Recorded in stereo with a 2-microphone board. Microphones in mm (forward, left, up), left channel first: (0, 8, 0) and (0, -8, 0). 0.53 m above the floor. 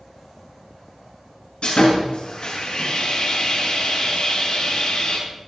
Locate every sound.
1.6 s sawing: 75° left (ahead or behind), 6.5 m